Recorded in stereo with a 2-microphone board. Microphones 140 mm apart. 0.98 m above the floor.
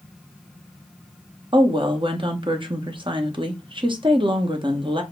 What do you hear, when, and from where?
1.5 s a woman speaking: 35° right (ahead or behind), 1.0 m